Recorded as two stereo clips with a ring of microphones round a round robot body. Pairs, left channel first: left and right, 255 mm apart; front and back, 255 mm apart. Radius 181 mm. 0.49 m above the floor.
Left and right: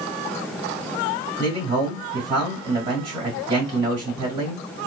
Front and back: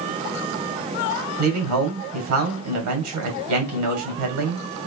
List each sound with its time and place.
1.4 s a man speaking: 165° right, 2.5 m